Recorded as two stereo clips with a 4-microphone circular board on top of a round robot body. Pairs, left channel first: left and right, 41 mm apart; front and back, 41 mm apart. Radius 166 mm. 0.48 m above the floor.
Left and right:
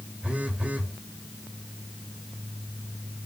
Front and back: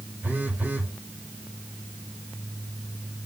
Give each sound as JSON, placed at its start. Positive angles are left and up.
{"t": 0.2, "sound": "a phone buzzing", "azimuth_deg": -150, "distance_m": 1.4}